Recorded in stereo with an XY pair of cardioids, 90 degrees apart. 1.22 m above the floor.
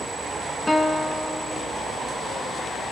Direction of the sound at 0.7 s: 10° left.